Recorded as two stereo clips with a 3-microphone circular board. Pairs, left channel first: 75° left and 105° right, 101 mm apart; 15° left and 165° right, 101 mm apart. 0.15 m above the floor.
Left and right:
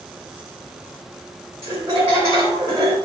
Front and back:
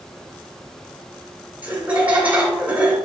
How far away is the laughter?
About 1.2 m.